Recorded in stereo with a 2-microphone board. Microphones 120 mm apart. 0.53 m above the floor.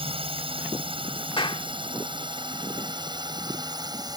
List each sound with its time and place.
0.0 s a drone: 50° right (ahead or behind); by 4.2 s 35° right (ahead or behind)
1.4 s a clap: 45° left (ahead or behind)